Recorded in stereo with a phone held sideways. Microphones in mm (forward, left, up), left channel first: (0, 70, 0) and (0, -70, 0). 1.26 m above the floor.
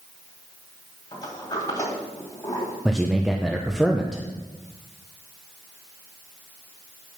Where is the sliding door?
25° left (ahead or behind), 2.5 m.